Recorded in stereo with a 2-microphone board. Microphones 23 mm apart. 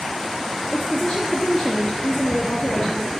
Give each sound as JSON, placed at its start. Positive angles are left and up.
{"t": 0.7, "sound": "a woman speaking", "side_deg": 25, "distance_m": 3.0}